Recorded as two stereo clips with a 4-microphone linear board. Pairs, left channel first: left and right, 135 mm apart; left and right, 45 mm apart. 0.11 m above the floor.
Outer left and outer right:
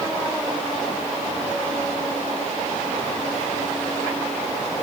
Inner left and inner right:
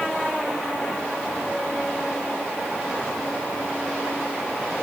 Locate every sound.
Only background noise.